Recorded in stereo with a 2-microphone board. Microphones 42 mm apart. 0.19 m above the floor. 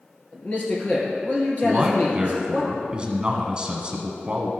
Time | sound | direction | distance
0.3 | a man speaking | 40° left (ahead or behind) | 3 m
1.6 | a man speaking | 25° right (ahead or behind) | 1.2 m